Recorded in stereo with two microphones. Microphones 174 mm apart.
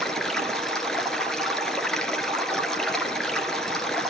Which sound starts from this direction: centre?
Running water, at 0.0 s.